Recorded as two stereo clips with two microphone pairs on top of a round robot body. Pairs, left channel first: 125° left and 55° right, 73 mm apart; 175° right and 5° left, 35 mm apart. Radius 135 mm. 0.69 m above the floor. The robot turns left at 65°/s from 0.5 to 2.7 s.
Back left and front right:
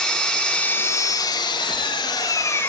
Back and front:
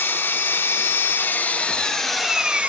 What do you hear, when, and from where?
0.0 s an engine running: 160° right, 3.5 m; by 2.7 s 60° left, 3.5 m